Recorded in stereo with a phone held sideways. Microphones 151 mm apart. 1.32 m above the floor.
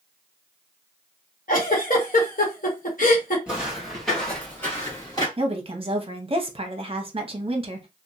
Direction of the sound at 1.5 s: 60° left (ahead or behind).